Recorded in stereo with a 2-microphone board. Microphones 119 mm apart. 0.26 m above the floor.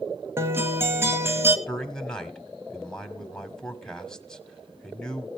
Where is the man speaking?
5° left (ahead or behind), 1.4 m.